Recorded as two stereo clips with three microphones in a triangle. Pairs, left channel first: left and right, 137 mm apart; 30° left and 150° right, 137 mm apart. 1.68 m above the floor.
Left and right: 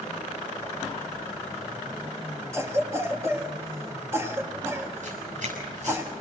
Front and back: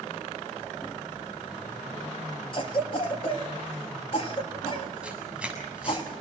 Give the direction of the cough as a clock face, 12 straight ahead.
1 o'clock.